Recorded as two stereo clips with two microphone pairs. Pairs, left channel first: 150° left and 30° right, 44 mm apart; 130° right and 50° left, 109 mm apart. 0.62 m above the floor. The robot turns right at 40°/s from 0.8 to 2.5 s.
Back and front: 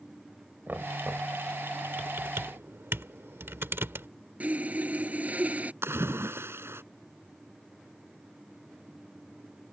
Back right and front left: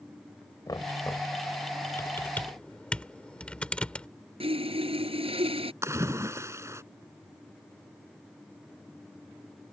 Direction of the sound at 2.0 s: 70° right.